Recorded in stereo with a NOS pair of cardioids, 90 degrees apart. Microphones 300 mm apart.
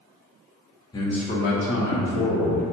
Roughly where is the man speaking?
Ahead.